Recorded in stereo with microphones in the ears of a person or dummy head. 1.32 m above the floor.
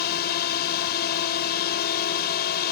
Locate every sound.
0.0 s a drone: 55° left (ahead or behind)